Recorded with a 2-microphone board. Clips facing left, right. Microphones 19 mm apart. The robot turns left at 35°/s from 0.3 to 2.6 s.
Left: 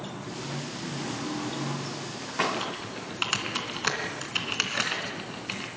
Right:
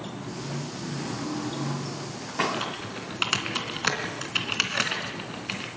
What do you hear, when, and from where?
2.5 s typing on a keyboard: 10° right (ahead or behind), 3 m